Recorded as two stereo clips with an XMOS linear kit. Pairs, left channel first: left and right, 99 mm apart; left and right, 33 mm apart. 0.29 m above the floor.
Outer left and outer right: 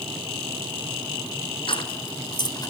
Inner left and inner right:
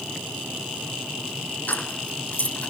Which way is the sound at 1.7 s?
55° left (ahead or behind).